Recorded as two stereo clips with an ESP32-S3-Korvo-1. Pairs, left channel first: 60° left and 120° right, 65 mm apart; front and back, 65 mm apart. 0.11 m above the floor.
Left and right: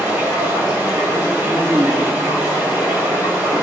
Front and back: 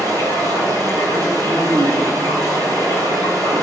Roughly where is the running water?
Behind.